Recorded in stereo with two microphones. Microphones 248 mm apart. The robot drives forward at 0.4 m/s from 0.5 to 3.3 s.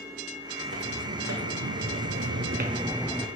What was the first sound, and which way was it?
Footsteps, 55° right (ahead or behind).